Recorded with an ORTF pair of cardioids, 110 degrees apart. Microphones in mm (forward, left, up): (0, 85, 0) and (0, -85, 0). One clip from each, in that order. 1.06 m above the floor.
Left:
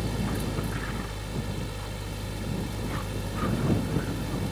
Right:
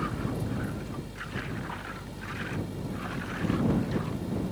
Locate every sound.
0.0 s a fan: 60° left